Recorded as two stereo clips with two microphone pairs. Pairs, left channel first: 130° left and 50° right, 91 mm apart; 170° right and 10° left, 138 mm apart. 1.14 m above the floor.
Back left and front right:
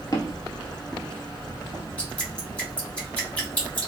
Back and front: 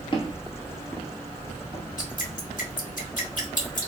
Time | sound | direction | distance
0.1 | footsteps | 155° left | 1.5 m
2.0 | dripping | 155° right | 1.5 m